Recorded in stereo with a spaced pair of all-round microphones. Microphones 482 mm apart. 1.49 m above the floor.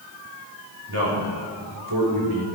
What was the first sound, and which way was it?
A man speaking, 55° right (ahead or behind).